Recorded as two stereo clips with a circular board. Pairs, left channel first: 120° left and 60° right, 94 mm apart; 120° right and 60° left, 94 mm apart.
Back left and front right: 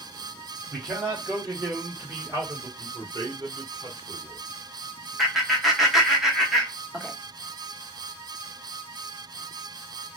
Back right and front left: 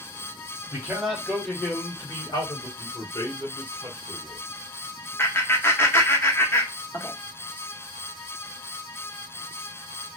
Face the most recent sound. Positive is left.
turn(degrees=-150)